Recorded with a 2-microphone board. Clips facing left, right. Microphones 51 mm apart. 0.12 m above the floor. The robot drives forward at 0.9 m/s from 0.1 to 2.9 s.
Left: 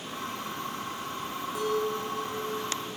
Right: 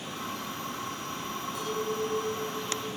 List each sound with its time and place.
1.6 s a clink: 25° left (ahead or behind), 2 m; by 2.9 s 15° left (ahead or behind), 3 m